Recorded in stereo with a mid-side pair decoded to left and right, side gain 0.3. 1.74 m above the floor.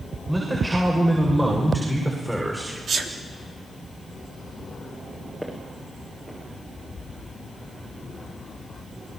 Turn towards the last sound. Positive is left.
turn(degrees=-25)